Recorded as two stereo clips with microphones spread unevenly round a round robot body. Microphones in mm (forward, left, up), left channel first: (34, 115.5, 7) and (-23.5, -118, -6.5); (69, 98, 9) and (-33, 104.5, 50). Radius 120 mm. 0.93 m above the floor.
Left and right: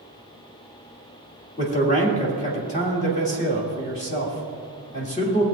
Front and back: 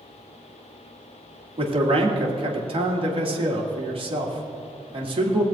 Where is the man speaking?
140° left, 1.9 m.